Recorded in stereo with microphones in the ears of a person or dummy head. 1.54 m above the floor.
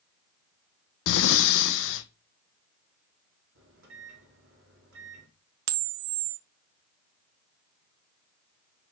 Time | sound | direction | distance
1.1 | breathing | 70° left (ahead or behind) | 0.8 m
3.5 | a microwave | 65° right (ahead or behind) | 2.5 m
5.7 | a camera shutter | 65° right (ahead or behind) | 0.6 m